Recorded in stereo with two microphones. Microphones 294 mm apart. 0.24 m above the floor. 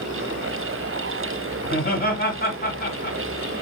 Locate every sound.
1.6 s laughter: 30° left (ahead or behind), 1.3 m